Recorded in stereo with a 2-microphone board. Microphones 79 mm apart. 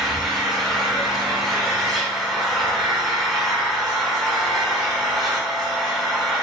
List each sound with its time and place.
0.0 s an engine running: centre (ahead or behind), 1.0 m